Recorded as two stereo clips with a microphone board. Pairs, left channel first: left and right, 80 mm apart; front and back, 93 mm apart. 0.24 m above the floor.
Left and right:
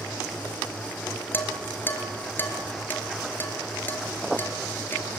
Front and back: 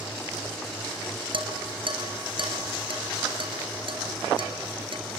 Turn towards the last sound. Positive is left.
turn(degrees=155)